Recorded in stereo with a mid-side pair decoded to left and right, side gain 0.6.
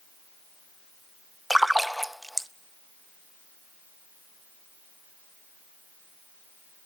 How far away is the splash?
About 0.6 m.